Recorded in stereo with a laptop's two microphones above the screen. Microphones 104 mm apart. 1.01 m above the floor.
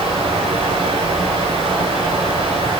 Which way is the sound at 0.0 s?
75° right (ahead or behind).